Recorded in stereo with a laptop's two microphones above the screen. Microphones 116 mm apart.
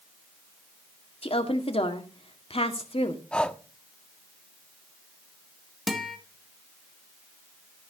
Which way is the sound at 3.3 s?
10° left (ahead or behind).